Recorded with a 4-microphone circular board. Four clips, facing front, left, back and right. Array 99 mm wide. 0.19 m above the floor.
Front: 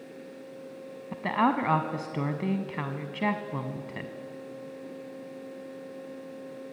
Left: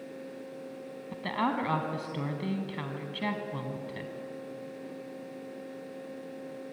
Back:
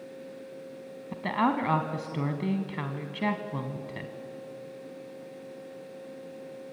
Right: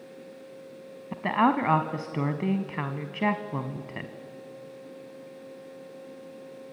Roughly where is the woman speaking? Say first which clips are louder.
Right 7 dB, front 1 dB; right.